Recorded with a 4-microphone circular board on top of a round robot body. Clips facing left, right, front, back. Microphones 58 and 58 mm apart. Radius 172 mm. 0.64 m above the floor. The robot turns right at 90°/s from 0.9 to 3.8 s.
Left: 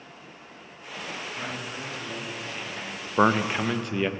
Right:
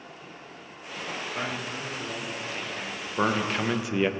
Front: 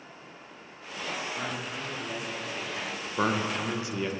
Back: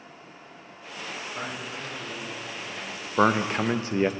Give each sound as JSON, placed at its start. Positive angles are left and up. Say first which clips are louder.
{"t": 1.4, "sound": "a man speaking", "louder": "right 2 dB, even", "azimuth_deg": -120, "distance_m": 3.0}
{"t": 3.2, "sound": "a man speaking", "louder": "left 4 dB, back 6 dB", "azimuth_deg": 130, "distance_m": 0.7}